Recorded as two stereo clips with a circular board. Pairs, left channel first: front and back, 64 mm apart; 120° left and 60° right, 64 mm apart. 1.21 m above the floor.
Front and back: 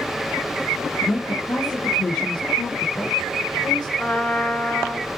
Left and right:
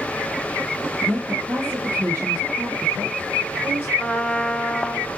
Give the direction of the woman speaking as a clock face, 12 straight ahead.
12 o'clock.